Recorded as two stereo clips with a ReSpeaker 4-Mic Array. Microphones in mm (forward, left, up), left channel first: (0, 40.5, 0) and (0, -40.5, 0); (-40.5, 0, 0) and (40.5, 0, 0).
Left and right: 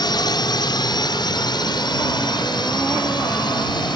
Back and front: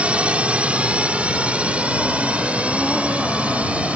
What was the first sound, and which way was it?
A drone, 75° left.